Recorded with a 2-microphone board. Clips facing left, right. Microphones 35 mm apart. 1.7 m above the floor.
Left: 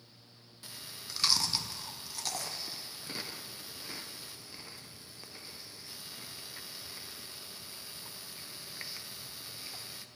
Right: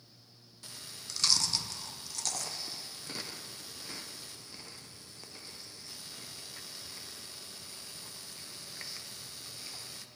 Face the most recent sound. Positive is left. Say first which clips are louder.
# left 1 dB
turn(degrees=15)  # may be behind; listen again after turning